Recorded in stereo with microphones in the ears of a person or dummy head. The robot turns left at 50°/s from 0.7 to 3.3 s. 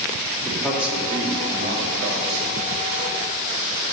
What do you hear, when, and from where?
0.5 s a man speaking: centre (ahead or behind), 2.5 m; by 2.5 s 85° right, 2.5 m